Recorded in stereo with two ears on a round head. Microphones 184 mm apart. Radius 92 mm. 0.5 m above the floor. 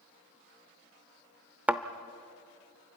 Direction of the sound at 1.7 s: 5° right (ahead or behind).